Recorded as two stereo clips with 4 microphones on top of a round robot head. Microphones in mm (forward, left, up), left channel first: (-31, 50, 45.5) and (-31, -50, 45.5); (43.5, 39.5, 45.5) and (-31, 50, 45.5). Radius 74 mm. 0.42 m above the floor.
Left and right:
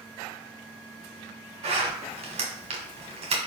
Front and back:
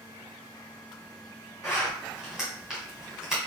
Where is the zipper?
105° right, 1.3 m.